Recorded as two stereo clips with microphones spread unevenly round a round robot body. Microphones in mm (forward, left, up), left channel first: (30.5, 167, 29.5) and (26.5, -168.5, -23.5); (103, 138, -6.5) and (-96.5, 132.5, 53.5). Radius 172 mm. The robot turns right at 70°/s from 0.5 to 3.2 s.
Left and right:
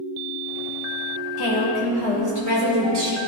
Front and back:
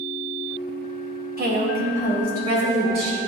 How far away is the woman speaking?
About 2.0 m.